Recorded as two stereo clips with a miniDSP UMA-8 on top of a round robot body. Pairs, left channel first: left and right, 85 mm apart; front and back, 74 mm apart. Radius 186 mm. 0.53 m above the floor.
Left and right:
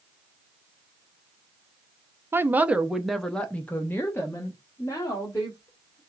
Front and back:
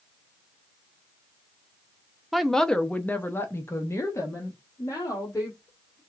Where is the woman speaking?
90° right, 0.9 m; by 6.0 s 45° left, 2 m.